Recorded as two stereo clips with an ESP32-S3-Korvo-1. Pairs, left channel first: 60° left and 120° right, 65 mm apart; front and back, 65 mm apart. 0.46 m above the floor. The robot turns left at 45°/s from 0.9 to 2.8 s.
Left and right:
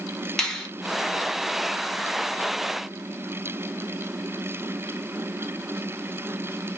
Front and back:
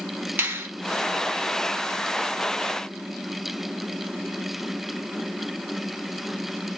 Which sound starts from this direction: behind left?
A finger snap, at 0.4 s.